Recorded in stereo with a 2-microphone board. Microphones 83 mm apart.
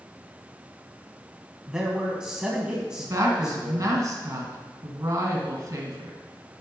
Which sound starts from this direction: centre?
A man speaking, at 1.7 s.